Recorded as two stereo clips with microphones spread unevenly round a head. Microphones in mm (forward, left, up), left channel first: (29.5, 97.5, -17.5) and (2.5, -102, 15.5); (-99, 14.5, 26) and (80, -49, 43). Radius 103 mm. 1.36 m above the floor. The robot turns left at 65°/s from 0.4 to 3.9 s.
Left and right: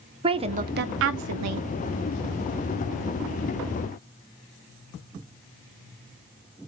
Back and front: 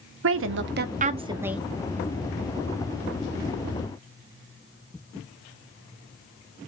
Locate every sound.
0.2 s a woman speaking: 30° right, 0.7 m; by 1.7 s 115° right, 0.7 m